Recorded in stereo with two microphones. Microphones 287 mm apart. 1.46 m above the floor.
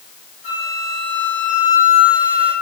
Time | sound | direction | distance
0.4 | a flute | 75° right (ahead or behind) | 2.5 m